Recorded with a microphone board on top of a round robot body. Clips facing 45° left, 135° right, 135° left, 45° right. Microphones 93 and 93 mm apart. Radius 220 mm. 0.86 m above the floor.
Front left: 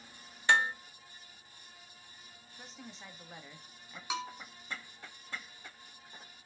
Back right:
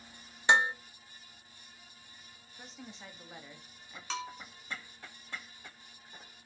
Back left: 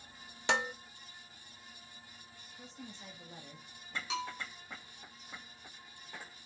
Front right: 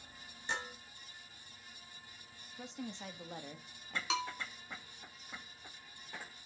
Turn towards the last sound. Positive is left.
turn(degrees=-35)